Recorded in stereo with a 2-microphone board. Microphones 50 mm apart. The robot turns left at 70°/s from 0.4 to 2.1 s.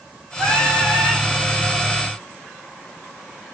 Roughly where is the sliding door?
I don't hear a sliding door.